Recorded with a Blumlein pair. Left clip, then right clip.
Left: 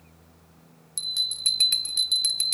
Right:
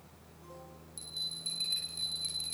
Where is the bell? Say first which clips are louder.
Left 12 dB; 35° left, 2.5 m.